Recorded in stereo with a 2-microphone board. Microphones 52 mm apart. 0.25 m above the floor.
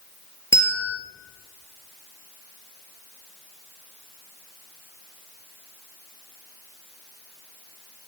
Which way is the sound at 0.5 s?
60° left (ahead or behind).